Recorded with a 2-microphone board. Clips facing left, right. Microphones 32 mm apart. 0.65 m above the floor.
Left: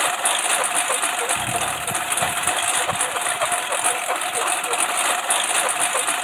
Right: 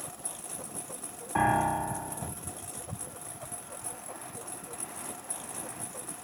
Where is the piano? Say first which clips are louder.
Left 2 dB; 50° right (ahead or behind).